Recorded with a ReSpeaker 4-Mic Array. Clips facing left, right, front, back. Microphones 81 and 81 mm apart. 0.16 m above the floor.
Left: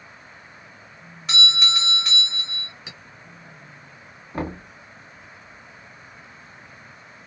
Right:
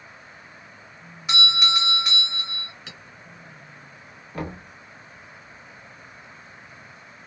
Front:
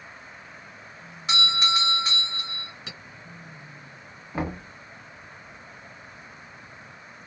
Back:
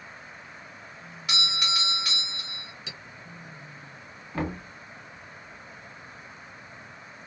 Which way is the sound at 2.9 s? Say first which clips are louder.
Left 1 dB, front 1 dB; 15° left.